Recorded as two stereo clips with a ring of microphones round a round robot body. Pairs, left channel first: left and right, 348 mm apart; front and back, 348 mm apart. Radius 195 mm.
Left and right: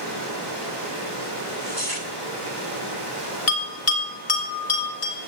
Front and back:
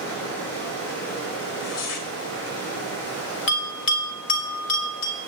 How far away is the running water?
About 5.5 m.